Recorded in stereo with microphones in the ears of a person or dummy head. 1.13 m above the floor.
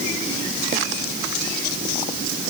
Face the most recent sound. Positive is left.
No sound to turn to.